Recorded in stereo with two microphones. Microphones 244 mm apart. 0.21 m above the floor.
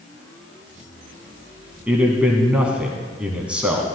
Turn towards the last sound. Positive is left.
turn(degrees=-5)  # may be behind; listen again after turning